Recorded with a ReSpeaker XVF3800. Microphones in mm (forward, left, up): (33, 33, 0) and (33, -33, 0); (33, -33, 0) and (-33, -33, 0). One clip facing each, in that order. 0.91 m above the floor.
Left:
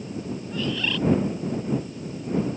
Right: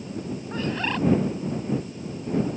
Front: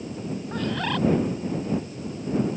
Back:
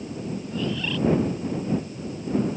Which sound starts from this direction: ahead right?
A bird, at 0.5 s.